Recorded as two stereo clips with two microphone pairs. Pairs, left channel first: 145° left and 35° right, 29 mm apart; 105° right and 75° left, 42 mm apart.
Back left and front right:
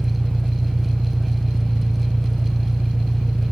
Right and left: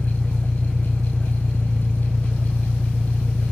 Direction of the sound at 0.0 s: 160° left.